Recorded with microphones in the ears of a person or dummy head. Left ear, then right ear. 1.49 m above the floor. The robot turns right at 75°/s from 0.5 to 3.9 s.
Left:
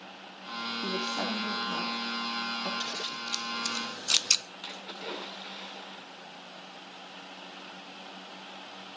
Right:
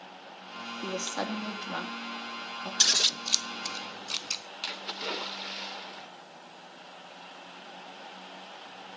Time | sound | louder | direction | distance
0.8 | a woman speaking | even | 125° right | 2.5 m
2.8 | scissors | right 10 dB | 60° right (ahead or behind) | 0.6 m
4.6 | a splash | right 4 dB | 45° right (ahead or behind) | 2 m